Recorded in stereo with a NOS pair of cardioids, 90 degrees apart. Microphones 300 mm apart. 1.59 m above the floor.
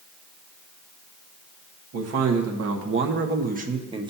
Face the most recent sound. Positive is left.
turn(degrees=-15)